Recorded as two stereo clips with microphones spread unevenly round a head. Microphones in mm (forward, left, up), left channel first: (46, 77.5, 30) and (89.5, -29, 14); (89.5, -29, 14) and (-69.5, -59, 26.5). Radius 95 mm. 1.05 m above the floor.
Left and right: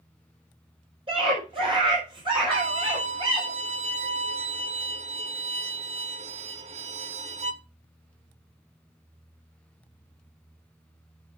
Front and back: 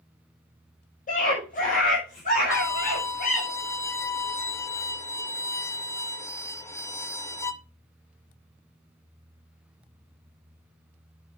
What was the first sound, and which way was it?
A scream, 30° right.